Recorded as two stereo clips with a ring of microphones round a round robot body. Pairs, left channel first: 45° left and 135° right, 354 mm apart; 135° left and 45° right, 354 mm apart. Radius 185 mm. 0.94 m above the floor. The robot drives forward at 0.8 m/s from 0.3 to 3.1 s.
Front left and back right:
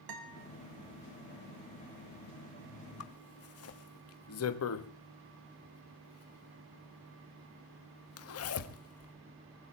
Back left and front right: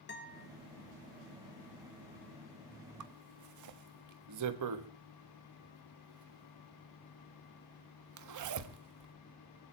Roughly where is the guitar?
Behind.